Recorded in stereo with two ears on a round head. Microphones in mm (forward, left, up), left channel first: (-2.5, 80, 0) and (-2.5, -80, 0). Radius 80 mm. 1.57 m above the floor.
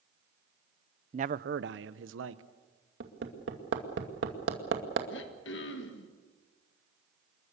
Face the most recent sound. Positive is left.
turn(degrees=70)  # may be behind; listen again after turning